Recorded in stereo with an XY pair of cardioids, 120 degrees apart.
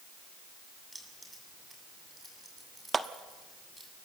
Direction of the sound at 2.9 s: 25° right.